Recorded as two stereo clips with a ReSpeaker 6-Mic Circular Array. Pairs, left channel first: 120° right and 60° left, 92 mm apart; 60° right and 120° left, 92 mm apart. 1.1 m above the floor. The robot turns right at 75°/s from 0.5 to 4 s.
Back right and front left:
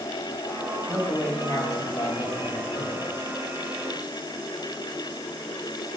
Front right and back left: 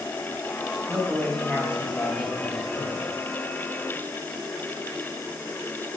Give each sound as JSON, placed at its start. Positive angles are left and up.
{"t": 0.9, "sound": "a woman speaking", "azimuth_deg": -175, "distance_m": 1.8}